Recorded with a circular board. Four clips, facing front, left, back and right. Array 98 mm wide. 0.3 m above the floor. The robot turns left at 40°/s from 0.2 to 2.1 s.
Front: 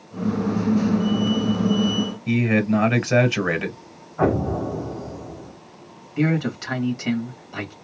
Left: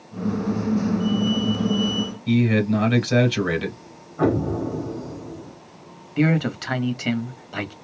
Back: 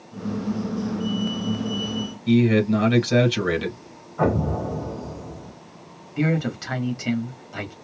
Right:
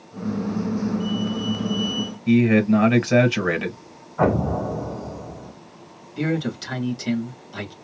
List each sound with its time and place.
2.3 s a man speaking: 35° right, 1.3 m
4.2 s an explosion: 95° right, 1.8 m
6.2 s a man speaking: 85° left, 1.2 m